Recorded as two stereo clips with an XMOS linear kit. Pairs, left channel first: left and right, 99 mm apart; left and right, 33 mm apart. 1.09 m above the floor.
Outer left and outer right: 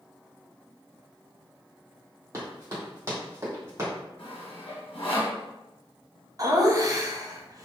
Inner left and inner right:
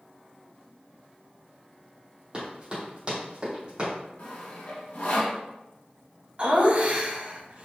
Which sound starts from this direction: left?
Sawing, at 4.2 s.